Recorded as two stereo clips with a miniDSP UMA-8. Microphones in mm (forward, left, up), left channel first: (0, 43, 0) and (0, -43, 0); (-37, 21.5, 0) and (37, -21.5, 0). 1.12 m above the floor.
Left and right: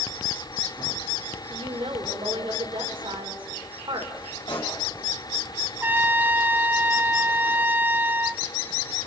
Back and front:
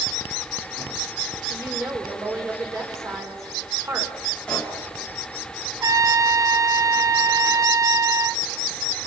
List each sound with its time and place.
1.5 s a woman speaking: 85° right, 4.5 m
4.5 s a pop: 75° left, 5 m
5.8 s a trumpet: 40° right, 0.8 m